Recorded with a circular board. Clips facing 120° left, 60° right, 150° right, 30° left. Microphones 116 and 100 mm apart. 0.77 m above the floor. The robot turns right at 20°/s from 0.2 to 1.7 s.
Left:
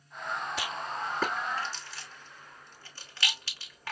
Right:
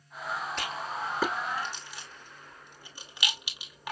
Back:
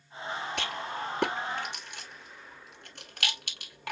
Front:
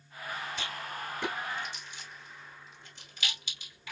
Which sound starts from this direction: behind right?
A rattle, at 0.6 s.